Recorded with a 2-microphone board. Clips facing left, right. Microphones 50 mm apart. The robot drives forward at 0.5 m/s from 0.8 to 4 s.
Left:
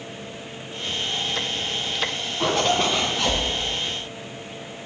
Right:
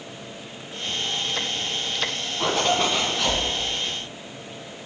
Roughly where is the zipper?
Centre.